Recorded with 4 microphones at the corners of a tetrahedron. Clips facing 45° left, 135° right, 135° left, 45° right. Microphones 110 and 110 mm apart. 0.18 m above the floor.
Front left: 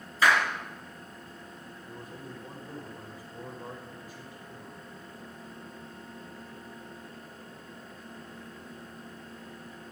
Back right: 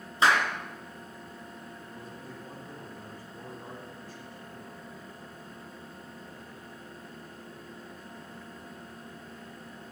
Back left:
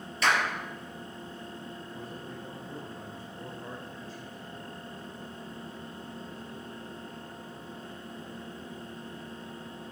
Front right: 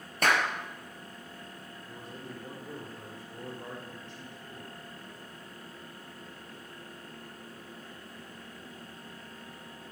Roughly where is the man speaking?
Ahead right.